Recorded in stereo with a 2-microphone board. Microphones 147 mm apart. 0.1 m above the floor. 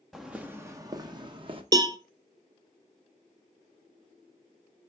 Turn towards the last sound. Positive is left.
turn(degrees=-30)  # may be behind; listen again after turning